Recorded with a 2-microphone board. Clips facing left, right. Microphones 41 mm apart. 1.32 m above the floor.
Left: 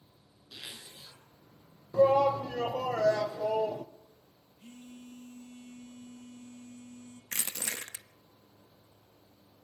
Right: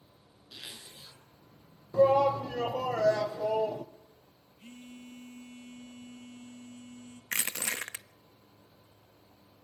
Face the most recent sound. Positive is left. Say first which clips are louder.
# right 4 dB
turn(degrees=-45)  # may be behind; listen again after turning